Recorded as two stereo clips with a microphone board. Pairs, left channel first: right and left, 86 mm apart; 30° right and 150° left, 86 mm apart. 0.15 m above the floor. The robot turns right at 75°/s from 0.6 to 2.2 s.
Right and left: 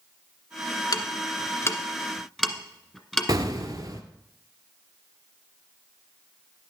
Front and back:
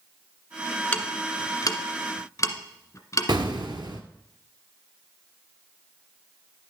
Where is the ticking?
100° right, 1.2 m; by 3.3 s 5° right, 1.2 m.